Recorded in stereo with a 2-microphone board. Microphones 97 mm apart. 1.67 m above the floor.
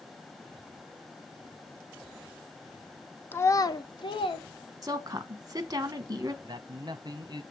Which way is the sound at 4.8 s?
40° right (ahead or behind).